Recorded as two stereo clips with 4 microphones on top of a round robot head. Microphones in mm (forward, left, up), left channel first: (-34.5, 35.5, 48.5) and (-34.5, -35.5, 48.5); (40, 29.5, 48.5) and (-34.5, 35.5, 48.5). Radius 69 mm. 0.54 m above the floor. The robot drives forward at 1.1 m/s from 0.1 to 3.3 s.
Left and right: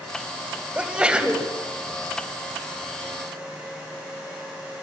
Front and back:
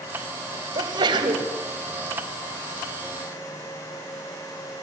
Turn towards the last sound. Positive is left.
turn(degrees=-170)